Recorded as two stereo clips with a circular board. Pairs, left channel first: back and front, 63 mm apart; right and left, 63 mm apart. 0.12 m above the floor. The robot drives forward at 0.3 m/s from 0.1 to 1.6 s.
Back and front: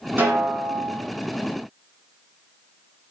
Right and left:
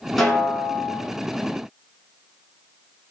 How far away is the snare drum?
About 1.6 m.